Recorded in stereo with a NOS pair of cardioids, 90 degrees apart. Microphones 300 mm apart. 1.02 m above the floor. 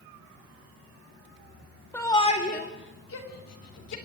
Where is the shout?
5° left, 2 m; by 4.0 s 60° left, 3.5 m.